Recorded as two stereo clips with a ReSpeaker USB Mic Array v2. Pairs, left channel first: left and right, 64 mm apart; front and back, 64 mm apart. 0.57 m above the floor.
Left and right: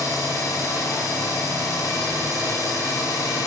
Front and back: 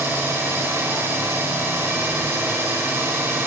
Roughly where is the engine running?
Behind left.